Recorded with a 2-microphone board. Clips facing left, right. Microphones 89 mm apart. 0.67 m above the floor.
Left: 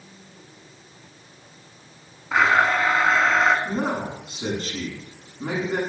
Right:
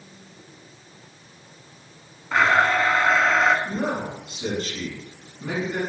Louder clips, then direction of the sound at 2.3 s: Even; 5° left (ahead or behind).